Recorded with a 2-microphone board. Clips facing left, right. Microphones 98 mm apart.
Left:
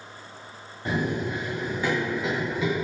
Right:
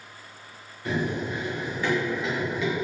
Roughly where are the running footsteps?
Left.